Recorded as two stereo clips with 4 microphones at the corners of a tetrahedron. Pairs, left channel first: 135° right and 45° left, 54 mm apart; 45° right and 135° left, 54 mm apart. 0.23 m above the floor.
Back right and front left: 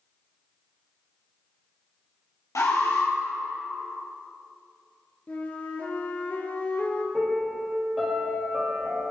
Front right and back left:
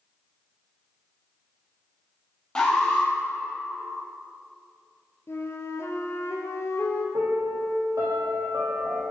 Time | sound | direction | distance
2.5 | an alarm | 120° right | 5 m
5.3 | a flute | 80° right | 2.5 m
7.1 | a piano | 135° left | 5 m